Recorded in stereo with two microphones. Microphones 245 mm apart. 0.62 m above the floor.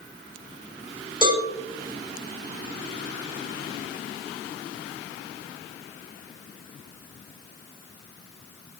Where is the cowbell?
20° right (ahead or behind), 4.5 m.